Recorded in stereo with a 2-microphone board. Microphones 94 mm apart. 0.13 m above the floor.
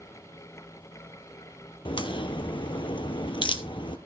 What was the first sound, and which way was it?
A crack, 65° left (ahead or behind).